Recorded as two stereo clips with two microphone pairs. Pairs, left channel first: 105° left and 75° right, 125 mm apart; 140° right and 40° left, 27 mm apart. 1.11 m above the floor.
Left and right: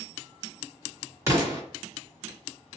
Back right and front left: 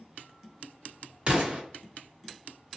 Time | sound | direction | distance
1.3 | an explosion | 10° right | 1.7 m